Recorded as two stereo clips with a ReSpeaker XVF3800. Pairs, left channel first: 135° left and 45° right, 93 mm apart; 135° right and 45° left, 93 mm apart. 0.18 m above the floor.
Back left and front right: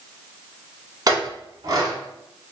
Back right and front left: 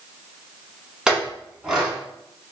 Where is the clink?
35° right, 0.8 m.